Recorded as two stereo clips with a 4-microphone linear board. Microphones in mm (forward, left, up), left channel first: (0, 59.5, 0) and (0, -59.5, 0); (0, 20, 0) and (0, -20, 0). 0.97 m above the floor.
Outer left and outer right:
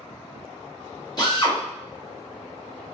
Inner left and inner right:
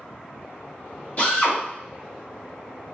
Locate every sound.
1.2 s a drill: 35° left (ahead or behind), 1.5 m